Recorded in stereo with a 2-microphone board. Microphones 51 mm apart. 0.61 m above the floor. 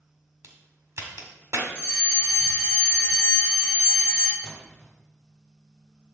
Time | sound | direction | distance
0.4 | a crack | 75° right (ahead or behind) | 1.6 m
1.8 | a fire alarm | 35° right (ahead or behind) | 3 m
4.4 | a splash | 20° left (ahead or behind) | 2.5 m